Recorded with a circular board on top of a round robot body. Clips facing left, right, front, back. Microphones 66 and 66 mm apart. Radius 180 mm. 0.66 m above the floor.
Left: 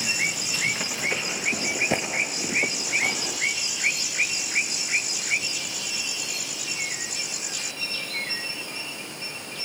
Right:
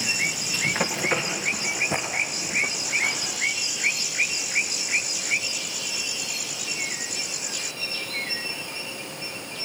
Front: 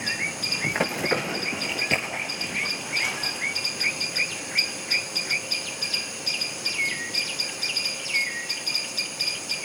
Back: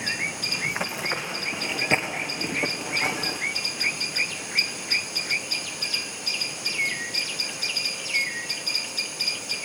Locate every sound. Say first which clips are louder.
0.6 s running footsteps: right 4 dB, front 5 dB; 40° right, 0.8 m; by 3.4 s 125° left, 1.3 m